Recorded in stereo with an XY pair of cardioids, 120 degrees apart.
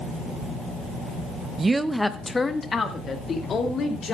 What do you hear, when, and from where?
1.6 s a woman speaking: 30° right, 0.7 m; by 4.2 s 45° left, 3 m